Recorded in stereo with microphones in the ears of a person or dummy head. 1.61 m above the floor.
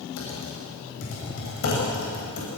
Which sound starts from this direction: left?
Typing on a keyboard, at 0.2 s.